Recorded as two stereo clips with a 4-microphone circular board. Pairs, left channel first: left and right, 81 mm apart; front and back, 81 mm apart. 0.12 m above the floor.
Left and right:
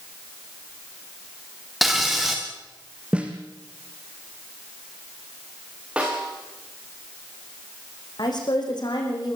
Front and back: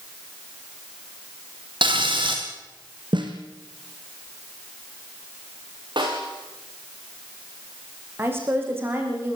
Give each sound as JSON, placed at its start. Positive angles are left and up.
{"t": 1.8, "sound": "frying", "azimuth_deg": -175, "distance_m": 4.5}
{"t": 3.1, "sound": "a snare drum", "azimuth_deg": -165, "distance_m": 3.5}
{"t": 6.0, "sound": "a snare drum", "azimuth_deg": -165, "distance_m": 9.5}
{"t": 8.2, "sound": "a woman speaking", "azimuth_deg": 120, "distance_m": 7.5}